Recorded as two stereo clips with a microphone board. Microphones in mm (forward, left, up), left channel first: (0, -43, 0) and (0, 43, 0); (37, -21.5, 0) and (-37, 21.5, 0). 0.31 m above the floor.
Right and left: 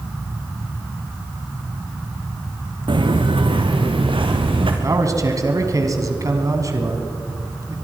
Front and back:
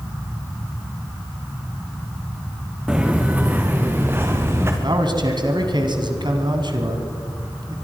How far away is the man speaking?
About 2.5 m.